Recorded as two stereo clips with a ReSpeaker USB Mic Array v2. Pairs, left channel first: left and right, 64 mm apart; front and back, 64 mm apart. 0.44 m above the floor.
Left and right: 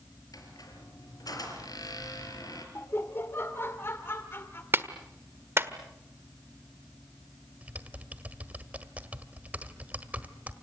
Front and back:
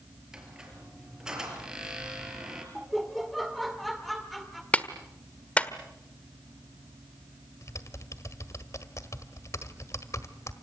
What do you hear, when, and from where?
0.3 s a squeak: 100° left, 5 m
2.8 s laughter: 90° left, 1.7 m
4.7 s a clap: 60° right, 1.4 m
7.6 s typing on a keyboard: 25° right, 1.6 m